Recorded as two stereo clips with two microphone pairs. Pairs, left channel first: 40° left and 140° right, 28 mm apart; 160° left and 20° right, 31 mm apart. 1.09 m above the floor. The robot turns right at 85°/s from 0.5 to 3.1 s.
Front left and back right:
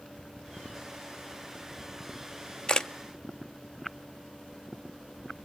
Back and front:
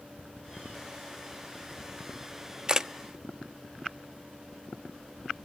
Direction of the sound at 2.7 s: 20° left.